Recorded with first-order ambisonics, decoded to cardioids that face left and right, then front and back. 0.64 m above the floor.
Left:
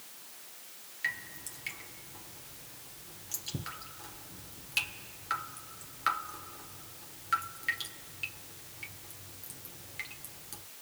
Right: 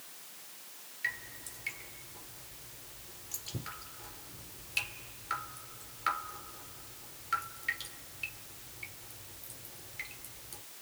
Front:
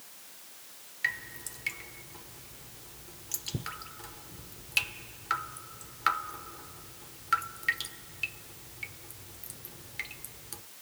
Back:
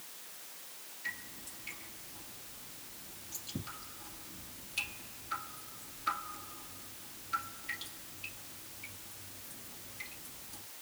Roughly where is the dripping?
Ahead.